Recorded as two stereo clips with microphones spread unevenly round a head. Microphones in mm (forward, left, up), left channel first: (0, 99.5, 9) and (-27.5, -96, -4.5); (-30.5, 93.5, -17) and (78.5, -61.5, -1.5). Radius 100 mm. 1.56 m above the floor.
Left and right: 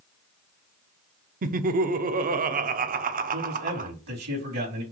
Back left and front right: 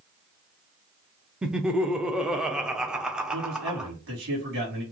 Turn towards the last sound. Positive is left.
turn(degrees=-90)